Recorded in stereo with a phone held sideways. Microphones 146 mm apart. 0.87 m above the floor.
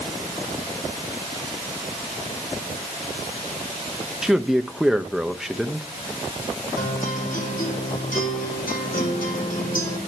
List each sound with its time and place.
4.2 s a man speaking: 5° right (ahead or behind), 0.8 m
6.8 s a guitar: 80° left, 7 m